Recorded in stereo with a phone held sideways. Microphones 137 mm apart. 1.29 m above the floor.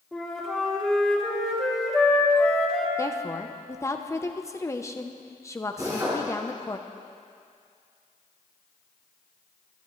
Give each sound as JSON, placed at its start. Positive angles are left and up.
{"t": 0.1, "sound": "a flute", "side_deg": 0, "distance_m": 3.0}
{"t": 3.0, "sound": "a woman speaking", "side_deg": 20, "distance_m": 0.9}
{"t": 5.8, "sound": "a drill", "side_deg": -25, "distance_m": 6.5}